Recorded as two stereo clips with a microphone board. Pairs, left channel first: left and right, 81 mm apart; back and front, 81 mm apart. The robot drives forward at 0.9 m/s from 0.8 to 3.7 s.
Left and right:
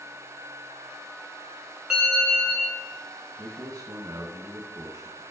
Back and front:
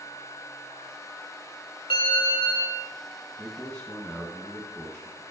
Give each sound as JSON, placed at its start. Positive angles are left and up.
{"t": 1.9, "sound": "a bell", "azimuth_deg": -170, "distance_m": 2.5}
{"t": 3.4, "sound": "a man speaking", "azimuth_deg": -95, "distance_m": 1.9}